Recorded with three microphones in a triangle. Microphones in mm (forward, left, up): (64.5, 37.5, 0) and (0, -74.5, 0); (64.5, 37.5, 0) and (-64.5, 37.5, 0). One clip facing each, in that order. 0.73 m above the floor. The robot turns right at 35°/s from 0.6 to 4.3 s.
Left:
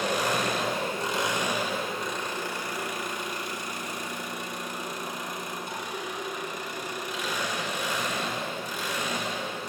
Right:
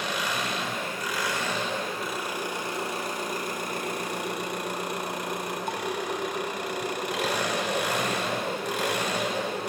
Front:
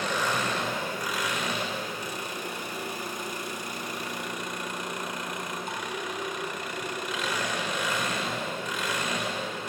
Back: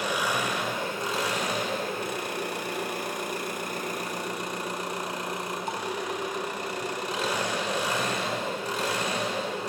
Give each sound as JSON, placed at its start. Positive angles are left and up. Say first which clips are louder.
{"t": 0.0, "sound": "an engine running", "louder": "left 4 dB, back 1 dB", "azimuth_deg": 100, "distance_m": 1.6}